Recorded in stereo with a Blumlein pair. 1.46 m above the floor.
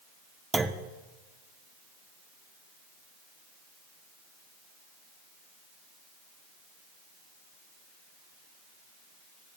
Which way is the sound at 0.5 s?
10° right.